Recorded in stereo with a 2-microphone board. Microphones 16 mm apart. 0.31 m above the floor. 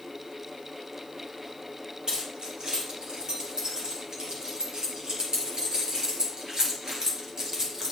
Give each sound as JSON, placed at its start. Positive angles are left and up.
{"t": 2.1, "sound": "keys jangling", "side_deg": -70, "distance_m": 5.0}